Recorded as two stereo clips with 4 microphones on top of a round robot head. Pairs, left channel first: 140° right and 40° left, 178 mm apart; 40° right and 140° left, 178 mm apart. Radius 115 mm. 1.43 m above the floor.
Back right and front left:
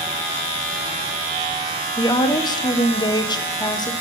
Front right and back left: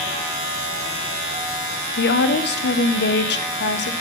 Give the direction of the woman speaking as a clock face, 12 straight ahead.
2 o'clock.